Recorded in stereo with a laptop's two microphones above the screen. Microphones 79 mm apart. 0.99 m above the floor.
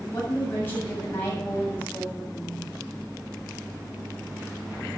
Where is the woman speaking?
25° left (ahead or behind), 7.5 m.